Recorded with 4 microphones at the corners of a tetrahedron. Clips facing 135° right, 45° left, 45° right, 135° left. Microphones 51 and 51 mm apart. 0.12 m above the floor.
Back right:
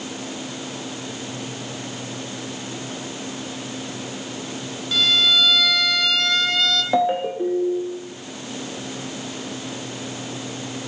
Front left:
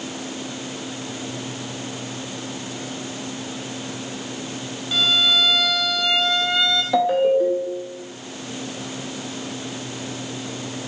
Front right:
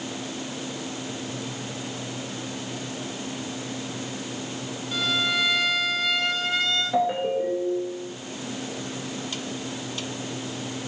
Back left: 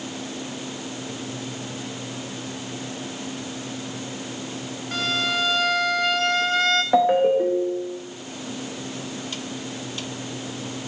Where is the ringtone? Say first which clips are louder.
Front left 5 dB, back left 7 dB; 165° left, 3 m.